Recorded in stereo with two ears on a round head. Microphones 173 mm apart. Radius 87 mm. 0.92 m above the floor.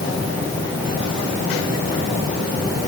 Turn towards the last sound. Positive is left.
No sound to turn to.